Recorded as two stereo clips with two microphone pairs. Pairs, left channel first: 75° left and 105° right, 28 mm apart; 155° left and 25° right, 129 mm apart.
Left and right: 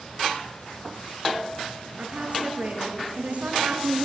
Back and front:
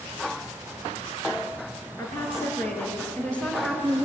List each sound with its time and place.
2.0 s a woman speaking: 135° right, 5.5 m; by 4.0 s 115° right, 4.5 m